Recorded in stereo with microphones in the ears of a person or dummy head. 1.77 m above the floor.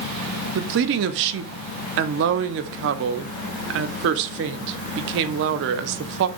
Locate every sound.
0.6 s a woman speaking: 65° right (ahead or behind), 0.5 m